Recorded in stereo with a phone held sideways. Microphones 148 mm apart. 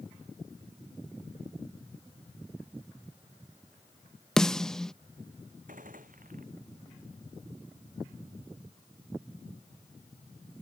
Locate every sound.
4.4 s a snare drum: 5° left (ahead or behind)
5.7 s a gunshot: 65° right (ahead or behind)